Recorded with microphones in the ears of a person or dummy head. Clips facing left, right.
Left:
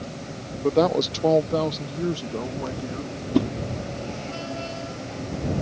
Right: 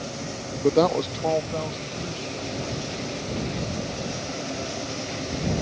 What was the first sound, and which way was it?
A woman speaking, 20° right (ahead or behind).